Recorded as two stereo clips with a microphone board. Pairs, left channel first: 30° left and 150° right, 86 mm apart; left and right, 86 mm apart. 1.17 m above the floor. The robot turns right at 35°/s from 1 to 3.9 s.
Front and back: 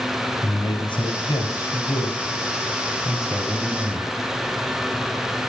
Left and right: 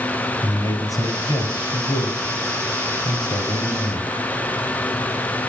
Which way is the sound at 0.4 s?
50° left.